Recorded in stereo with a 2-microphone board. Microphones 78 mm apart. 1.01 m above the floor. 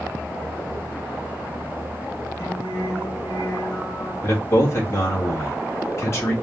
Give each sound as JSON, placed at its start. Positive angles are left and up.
{"t": 2.4, "sound": "singing", "side_deg": 45, "distance_m": 3.0}
{"t": 4.2, "sound": "a man speaking", "side_deg": 35, "distance_m": 1.6}